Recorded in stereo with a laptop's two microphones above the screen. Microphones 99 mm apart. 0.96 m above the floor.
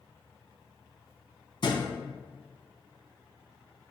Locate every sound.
1.6 s a thud: 55° left (ahead or behind), 1.2 m